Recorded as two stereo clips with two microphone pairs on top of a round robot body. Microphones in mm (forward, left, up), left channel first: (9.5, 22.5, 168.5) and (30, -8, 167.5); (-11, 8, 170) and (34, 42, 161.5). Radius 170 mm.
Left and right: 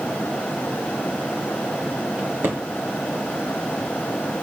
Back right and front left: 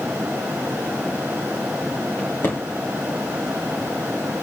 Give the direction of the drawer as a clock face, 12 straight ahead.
3 o'clock.